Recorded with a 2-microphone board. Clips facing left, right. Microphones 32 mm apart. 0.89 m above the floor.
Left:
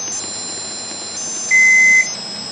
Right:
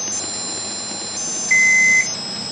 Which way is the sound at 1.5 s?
5° right (ahead or behind).